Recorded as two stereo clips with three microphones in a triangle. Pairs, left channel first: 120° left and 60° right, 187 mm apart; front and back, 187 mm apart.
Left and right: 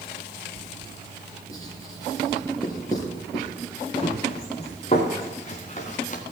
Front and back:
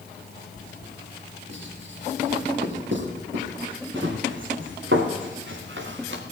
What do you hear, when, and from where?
1.5 s writing: 170° right, 4.5 m
4.0 s running footsteps: straight behind, 4 m; by 6.2 s 170° left, 2.5 m